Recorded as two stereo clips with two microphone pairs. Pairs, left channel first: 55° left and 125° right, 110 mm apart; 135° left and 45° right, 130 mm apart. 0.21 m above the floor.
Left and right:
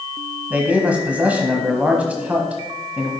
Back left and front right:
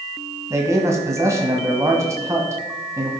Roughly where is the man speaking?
Ahead right.